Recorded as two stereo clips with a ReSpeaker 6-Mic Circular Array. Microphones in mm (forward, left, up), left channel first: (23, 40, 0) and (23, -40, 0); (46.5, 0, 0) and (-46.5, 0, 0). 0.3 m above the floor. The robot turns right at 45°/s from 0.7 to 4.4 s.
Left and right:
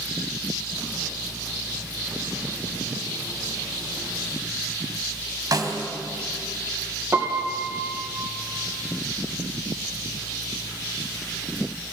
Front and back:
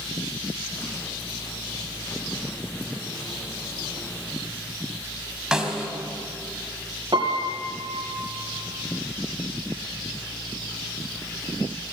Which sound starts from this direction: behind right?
A piano, at 7.1 s.